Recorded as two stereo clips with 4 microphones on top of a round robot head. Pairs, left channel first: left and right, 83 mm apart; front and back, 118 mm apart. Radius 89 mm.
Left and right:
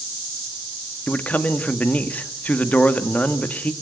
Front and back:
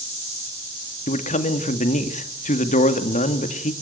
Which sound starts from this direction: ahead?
A man speaking, at 1.1 s.